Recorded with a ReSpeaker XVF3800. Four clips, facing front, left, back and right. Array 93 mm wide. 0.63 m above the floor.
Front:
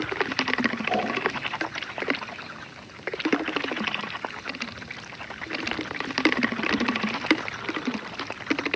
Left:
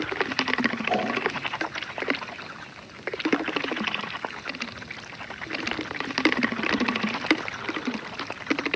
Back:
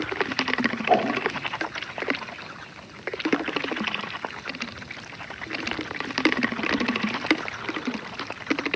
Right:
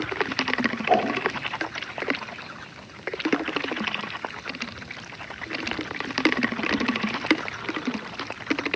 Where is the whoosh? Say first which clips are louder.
Right 4 dB, back 5 dB; 140° right, 1.2 m.